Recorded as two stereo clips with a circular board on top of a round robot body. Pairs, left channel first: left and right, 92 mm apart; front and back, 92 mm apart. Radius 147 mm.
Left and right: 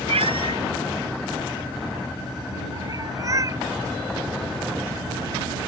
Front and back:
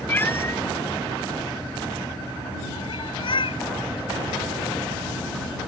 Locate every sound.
0.1 s a cat meowing: 70° right; by 3.6 s 35° right